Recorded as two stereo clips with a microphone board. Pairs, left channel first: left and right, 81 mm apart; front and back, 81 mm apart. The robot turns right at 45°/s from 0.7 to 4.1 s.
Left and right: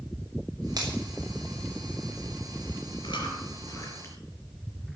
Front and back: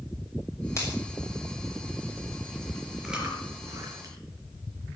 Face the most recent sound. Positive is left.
turn(degrees=145)